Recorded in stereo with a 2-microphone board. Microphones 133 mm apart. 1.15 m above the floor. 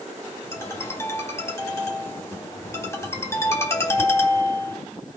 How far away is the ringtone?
About 3.5 m.